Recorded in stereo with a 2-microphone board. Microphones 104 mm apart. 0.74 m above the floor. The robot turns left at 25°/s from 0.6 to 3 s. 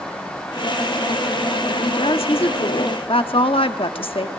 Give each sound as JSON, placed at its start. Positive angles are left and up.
{"t": 1.7, "sound": "a woman speaking", "azimuth_deg": 105, "distance_m": 1.2}